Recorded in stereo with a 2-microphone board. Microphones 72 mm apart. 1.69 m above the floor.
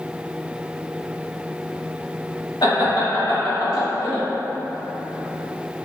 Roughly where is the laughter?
Left.